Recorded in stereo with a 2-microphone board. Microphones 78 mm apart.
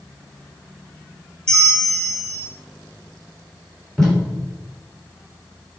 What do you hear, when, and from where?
1.5 s a bell: 5° left (ahead or behind), 1.4 m
4.0 s tape being pulled: 5° left (ahead or behind), 3.5 m